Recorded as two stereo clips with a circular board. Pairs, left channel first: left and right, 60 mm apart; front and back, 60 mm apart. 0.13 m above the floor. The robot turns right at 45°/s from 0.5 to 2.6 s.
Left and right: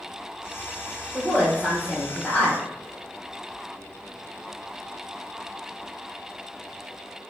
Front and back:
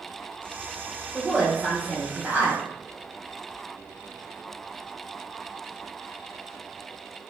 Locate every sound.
1.1 s a woman speaking: 95° left, 1.4 m; by 2.6 s 165° left, 1.4 m